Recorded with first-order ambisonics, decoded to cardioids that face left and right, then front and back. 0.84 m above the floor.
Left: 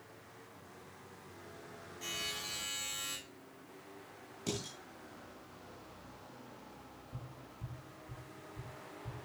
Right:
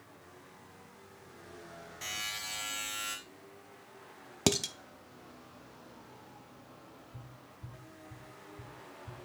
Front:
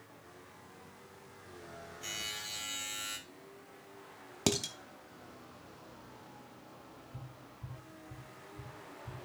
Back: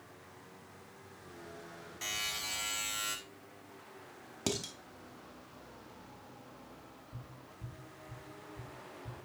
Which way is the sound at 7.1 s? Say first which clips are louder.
Left 1 dB, even; 120° left.